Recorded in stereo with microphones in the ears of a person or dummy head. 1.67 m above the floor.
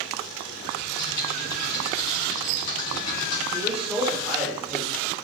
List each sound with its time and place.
0.8 s typing on a keyboard: 55° left (ahead or behind), 2.0 m
3.5 s a man speaking: centre (ahead or behind), 1.0 m